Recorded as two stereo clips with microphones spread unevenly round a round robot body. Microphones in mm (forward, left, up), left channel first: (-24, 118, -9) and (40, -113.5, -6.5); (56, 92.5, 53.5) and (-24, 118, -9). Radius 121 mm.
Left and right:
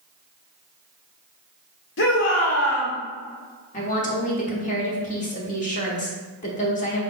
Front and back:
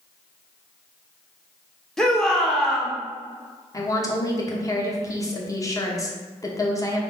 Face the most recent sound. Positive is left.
turn(degrees=70)